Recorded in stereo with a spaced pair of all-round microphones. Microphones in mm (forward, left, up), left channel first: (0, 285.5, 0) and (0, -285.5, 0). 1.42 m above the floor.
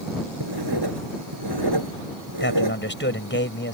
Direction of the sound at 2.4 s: 20° left (ahead or behind).